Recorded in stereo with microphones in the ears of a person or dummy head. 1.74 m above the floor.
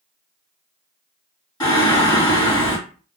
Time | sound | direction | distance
1.6 | singing | 20° left (ahead or behind) | 2 m